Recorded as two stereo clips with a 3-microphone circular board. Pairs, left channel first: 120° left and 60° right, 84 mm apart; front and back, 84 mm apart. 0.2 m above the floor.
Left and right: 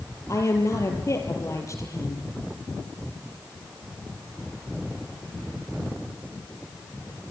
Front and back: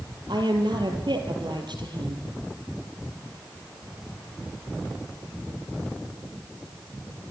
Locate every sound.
0.3 s a woman speaking: 165° left, 4 m